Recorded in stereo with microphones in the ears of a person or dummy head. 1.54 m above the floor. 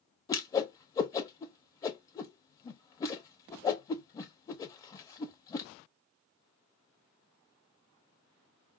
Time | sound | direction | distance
0.3 | a whoosh | 20° left (ahead or behind) | 0.6 m